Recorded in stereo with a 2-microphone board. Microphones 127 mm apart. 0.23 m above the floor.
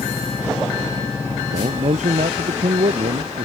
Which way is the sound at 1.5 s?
70° right (ahead or behind).